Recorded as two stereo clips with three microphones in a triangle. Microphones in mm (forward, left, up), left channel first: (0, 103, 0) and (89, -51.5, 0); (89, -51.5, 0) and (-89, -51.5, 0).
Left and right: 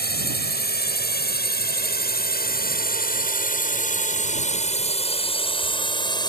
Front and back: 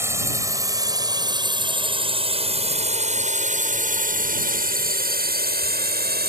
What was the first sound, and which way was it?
A drone, 105° left.